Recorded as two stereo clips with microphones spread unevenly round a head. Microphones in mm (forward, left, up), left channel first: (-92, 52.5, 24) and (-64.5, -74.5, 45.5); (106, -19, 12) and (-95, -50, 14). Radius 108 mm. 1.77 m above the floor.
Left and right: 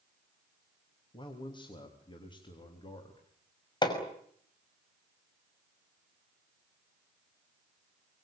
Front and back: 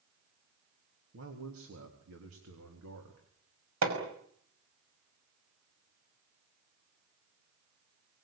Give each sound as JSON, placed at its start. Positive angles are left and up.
{"t": 1.1, "sound": "a man speaking", "azimuth_deg": 155, "distance_m": 3.0}
{"t": 3.8, "sound": "hammering", "azimuth_deg": 160, "distance_m": 5.5}